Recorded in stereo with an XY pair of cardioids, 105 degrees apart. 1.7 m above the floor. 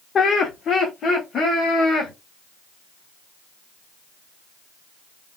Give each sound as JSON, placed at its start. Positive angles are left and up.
{"t": 0.1, "sound": "laughter", "azimuth_deg": 50, "distance_m": 0.6}